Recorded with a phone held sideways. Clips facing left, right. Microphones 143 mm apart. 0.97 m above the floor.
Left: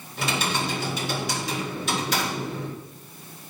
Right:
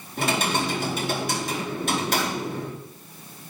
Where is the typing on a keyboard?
50° right (ahead or behind), 2 m.